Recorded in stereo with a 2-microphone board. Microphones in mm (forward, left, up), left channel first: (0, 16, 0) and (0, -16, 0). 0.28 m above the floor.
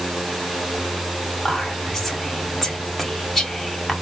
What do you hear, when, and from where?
1.4 s whispering: 5° left (ahead or behind), 1.5 m